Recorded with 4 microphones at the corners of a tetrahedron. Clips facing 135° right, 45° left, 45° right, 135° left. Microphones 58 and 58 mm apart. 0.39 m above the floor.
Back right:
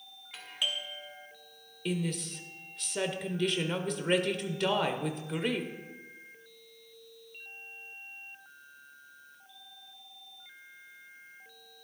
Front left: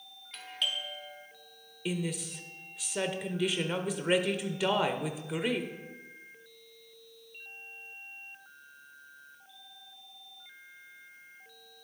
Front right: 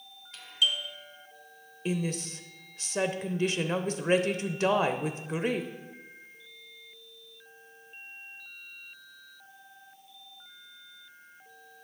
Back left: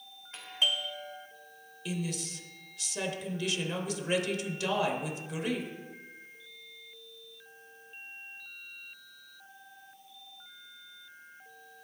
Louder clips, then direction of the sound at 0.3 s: Even, front right 1 dB; 150° left.